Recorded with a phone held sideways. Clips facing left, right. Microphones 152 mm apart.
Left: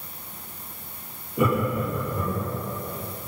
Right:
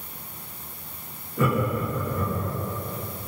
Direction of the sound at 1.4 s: 15° left (ahead or behind).